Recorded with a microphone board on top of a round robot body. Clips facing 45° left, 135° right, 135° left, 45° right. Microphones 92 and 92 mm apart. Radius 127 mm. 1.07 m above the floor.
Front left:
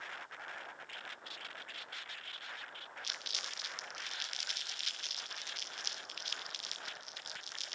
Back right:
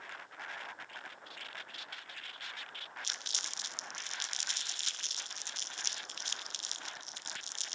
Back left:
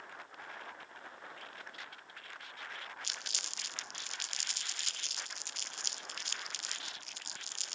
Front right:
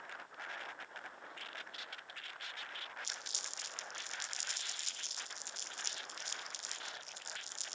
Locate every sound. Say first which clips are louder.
3.0 s crumpling: even, back left 2 dB; 165° left, 0.6 m